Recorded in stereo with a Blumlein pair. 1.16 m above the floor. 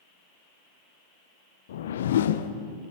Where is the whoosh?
60° left, 0.6 m.